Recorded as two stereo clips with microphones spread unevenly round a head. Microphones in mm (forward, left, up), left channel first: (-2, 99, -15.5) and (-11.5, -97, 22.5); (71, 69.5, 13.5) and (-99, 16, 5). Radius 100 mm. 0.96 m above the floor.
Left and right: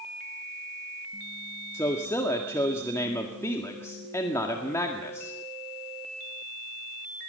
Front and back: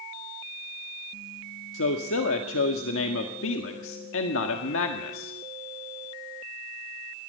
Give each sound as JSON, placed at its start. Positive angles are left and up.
{"t": 1.7, "sound": "a man speaking", "azimuth_deg": 10, "distance_m": 1.8}